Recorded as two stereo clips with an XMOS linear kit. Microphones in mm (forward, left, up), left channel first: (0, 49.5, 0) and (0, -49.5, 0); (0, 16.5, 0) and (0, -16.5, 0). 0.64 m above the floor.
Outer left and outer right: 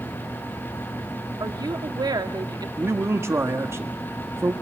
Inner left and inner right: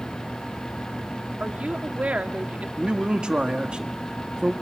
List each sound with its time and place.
1.4 s a woman speaking: 45° right (ahead or behind), 1.4 m
2.8 s a man speaking: 25° right (ahead or behind), 1.3 m